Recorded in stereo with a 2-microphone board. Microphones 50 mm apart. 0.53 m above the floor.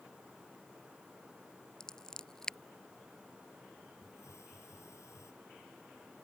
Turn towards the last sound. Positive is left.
turn(degrees=70)  # may be behind; listen again after turning